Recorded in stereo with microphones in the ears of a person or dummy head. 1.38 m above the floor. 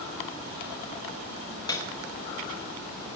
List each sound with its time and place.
1.7 s a piano: 25° left (ahead or behind), 1.2 m